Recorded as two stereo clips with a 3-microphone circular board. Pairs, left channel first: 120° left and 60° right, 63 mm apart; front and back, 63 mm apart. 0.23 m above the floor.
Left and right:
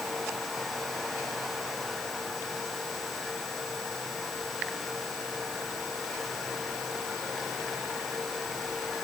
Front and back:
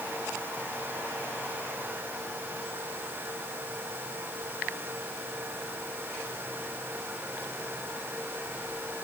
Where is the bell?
No bell in this recording.